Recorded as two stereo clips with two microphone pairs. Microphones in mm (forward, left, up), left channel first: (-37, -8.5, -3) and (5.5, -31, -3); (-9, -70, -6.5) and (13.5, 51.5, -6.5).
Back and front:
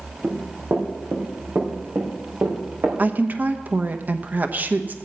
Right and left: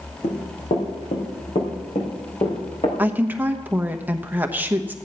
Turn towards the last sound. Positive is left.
turn(degrees=10)